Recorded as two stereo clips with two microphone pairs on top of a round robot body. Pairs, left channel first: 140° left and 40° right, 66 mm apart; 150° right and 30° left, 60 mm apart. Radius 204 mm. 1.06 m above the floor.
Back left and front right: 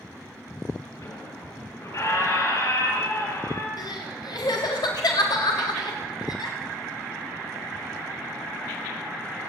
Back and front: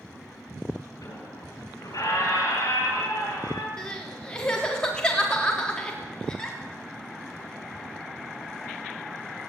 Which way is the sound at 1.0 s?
Straight behind.